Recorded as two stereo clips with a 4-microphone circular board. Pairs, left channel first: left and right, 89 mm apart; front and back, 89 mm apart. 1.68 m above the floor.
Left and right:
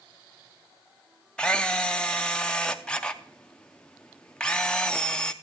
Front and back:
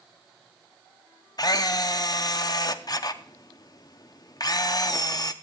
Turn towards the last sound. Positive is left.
turn(degrees=15)